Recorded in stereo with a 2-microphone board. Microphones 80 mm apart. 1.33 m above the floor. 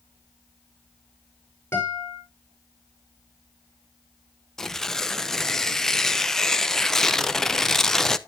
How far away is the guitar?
About 5.5 m.